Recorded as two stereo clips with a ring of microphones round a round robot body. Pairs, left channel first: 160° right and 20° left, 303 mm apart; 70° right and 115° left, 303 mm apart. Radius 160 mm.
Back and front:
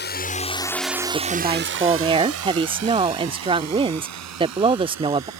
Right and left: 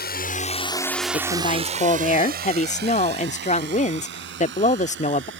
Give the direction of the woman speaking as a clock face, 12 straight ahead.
1 o'clock.